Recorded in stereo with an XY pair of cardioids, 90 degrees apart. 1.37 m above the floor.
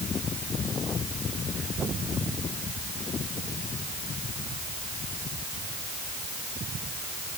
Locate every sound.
Only background noise.